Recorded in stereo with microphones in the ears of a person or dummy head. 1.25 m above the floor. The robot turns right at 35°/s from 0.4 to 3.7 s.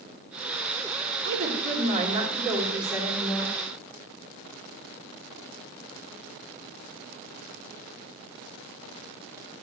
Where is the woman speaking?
60° right, 4 m; by 3.6 s 20° left, 4 m.